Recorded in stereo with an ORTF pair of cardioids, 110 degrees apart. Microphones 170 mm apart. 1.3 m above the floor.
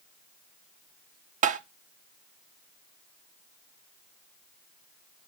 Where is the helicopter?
I don't hear a helicopter.